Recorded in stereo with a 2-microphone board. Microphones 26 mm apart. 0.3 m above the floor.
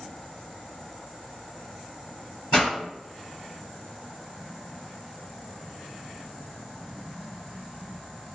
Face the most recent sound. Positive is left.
turn(degrees=30)  # may be behind; listen again after turning